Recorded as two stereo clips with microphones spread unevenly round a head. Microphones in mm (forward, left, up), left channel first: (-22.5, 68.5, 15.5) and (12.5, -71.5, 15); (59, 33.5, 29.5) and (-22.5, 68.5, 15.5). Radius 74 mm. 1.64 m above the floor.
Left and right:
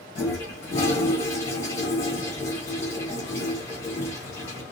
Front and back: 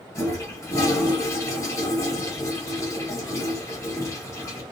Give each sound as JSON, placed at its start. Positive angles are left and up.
{"t": 0.1, "sound": "a toilet flushing", "azimuth_deg": 30, "distance_m": 1.7}